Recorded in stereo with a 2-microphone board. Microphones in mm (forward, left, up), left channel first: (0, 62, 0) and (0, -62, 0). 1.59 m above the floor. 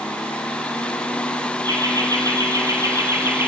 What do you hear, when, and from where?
1.6 s laughter: 30° right (ahead or behind), 3.5 m; by 3.5 s 15° right (ahead or behind), 3 m